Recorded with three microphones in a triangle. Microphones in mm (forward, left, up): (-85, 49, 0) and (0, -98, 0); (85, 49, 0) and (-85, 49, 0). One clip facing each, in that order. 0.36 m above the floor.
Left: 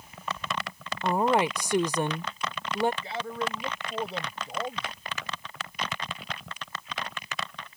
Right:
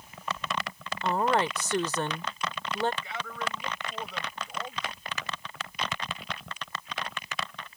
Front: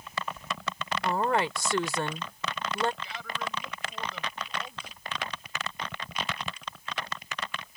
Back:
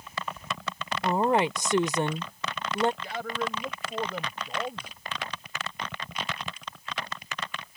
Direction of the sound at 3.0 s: 170° left.